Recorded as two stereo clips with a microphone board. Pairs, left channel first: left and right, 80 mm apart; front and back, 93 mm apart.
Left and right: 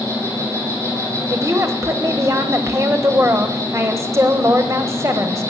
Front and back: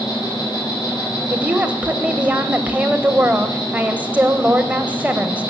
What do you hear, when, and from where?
0.0 s an insect: 40° right, 5.5 m
1.3 s a woman speaking: 115° right, 1.2 m